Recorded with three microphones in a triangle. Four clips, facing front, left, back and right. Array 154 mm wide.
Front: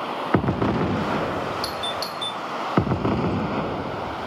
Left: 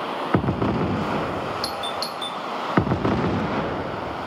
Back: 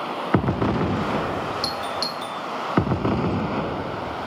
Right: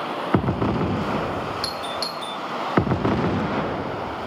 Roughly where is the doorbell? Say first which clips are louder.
Left 1 dB, back 1 dB; behind.